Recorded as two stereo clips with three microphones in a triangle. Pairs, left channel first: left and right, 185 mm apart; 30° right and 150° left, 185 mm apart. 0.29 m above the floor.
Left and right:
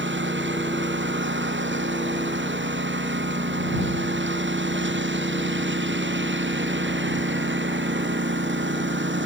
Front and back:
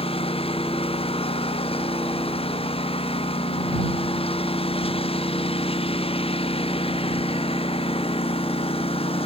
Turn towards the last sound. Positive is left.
turn(degrees=-90)